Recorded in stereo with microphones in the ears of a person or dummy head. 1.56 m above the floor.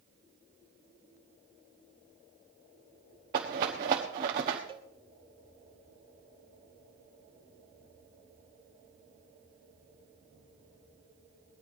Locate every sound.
3.3 s a rattle: 20° right (ahead or behind), 1.0 m
4.7 s a cowbell: 25° right (ahead or behind), 0.7 m